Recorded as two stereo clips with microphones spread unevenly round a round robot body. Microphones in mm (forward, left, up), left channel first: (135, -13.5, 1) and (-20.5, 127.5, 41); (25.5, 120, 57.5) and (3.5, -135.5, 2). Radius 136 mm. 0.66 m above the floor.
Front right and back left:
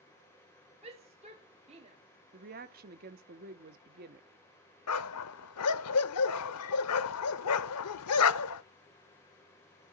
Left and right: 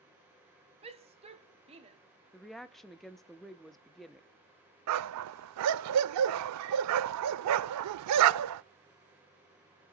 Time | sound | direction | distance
0.8 | a shout | 155° right | 1.6 m
2.3 | a woman speaking | 175° right | 0.8 m
4.9 | a dog barking | 65° right | 0.5 m